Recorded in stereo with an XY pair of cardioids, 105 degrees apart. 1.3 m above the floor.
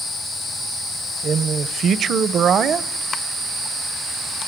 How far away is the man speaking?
About 0.8 m.